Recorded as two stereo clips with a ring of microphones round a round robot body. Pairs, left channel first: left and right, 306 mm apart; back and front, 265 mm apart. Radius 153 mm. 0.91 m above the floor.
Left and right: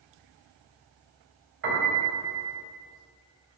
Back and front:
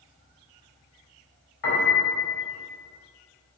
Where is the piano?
145° right, 2.5 m.